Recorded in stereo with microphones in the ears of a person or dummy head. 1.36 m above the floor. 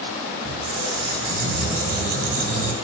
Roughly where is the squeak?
Right.